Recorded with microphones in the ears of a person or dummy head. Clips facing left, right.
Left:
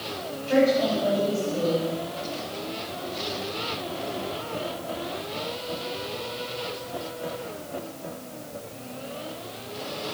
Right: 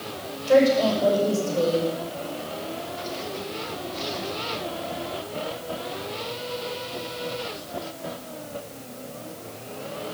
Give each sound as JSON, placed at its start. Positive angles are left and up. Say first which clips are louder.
{"t": 0.5, "sound": "a woman speaking", "louder": "right 3 dB", "side_deg": -65, "distance_m": 6.0}